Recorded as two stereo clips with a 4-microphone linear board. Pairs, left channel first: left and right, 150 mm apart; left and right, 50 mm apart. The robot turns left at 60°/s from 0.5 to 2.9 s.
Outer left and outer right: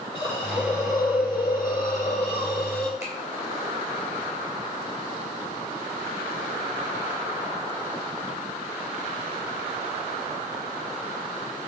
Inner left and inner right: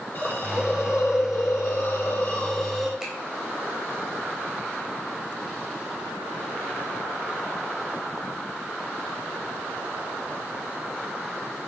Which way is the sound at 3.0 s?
20° right (ahead or behind).